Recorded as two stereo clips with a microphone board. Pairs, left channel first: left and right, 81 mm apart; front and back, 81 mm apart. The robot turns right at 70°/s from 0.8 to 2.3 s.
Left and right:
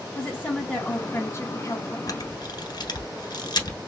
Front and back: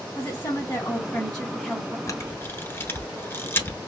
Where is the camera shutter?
45° left, 1.2 m; by 3.8 s 60° left, 1.2 m.